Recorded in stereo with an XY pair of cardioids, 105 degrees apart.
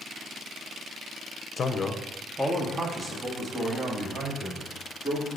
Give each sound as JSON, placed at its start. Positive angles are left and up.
{"t": 1.6, "sound": "a man speaking", "azimuth_deg": 45, "distance_m": 0.9}